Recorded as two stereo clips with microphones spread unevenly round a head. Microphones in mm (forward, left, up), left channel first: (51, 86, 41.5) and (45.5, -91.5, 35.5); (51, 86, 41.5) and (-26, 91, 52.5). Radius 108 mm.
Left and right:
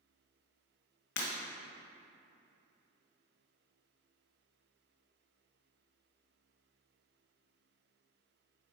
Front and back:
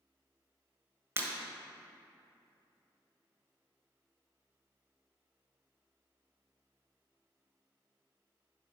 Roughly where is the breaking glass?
Behind left.